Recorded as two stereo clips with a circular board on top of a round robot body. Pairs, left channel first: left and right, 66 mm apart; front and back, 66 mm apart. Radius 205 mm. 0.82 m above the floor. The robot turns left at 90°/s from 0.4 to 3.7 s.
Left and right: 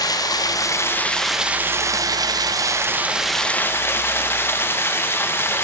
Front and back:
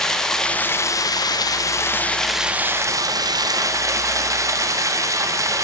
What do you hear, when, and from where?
0.0 s running water: 80° left, 0.7 m; by 5.6 s 145° left, 0.7 m